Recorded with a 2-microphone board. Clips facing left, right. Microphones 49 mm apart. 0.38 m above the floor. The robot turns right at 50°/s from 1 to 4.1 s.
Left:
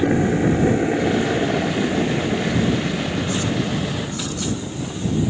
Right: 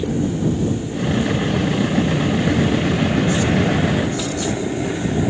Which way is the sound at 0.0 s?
80° left.